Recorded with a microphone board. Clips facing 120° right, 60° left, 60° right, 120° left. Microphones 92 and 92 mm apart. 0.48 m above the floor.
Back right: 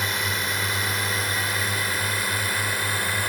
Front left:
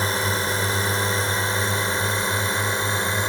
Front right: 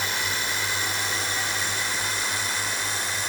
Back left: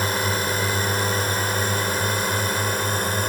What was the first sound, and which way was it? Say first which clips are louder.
A drone: front left 4 dB, back left 6 dB; 100° left.